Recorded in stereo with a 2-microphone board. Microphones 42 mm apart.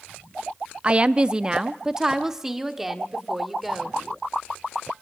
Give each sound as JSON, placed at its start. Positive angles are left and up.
{"t": 0.8, "sound": "a woman speaking", "side_deg": -25, "distance_m": 0.5}